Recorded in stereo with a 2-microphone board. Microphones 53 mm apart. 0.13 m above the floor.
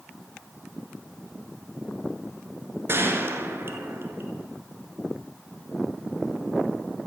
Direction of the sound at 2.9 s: 45° right (ahead or behind).